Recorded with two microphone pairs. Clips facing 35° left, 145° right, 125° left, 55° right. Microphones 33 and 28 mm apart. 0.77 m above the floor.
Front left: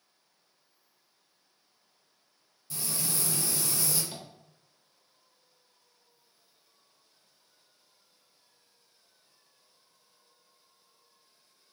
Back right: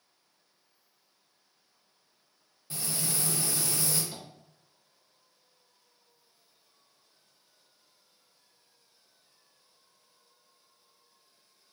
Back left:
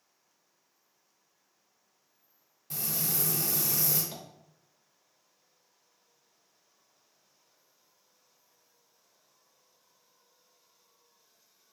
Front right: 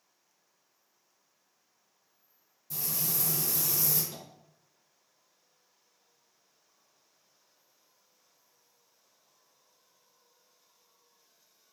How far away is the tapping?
About 0.9 m.